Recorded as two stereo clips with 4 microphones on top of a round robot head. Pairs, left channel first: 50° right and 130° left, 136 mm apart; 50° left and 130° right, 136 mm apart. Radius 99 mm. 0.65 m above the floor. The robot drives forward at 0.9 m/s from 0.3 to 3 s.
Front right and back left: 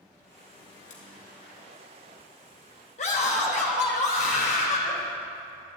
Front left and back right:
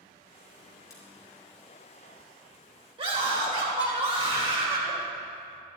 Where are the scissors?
15° right, 3.5 m.